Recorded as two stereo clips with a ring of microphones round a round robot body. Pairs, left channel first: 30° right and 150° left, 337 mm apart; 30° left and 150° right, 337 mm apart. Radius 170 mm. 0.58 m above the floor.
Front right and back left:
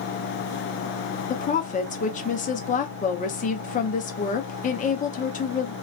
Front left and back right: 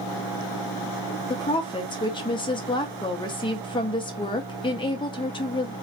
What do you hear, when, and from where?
1.3 s a woman speaking: 20° right, 0.6 m